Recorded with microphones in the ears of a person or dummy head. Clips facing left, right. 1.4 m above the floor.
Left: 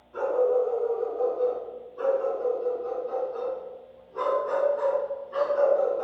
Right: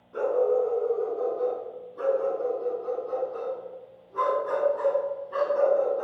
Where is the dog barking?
50° right (ahead or behind), 5.5 m; by 6.0 s 75° right (ahead or behind), 4 m.